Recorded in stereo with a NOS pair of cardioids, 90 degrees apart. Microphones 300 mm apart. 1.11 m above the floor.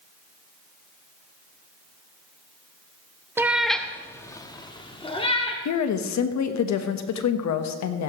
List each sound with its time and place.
3.4 s a cat meowing: 10° right, 0.7 m; by 5.5 s 20° left, 2.0 m
5.7 s a woman speaking: 65° left, 1.3 m